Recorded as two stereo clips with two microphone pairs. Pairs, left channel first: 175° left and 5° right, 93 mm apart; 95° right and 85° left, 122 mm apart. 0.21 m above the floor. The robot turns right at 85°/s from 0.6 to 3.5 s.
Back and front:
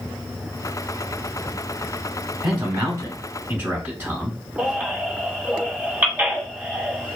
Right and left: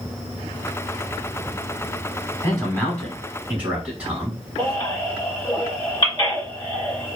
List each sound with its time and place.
2.4 s a man speaking: 70° right, 1.1 m; by 4.4 s 20° left, 1.1 m
4.6 s a baby crying: 65° right, 1.5 m